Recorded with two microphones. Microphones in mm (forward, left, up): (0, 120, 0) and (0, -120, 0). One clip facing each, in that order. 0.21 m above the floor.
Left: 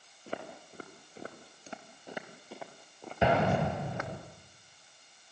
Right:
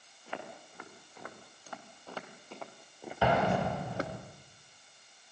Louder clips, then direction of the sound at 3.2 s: Left 1 dB; 20° left (ahead or behind).